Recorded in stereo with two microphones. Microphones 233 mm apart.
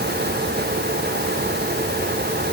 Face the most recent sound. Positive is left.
No sound to turn to.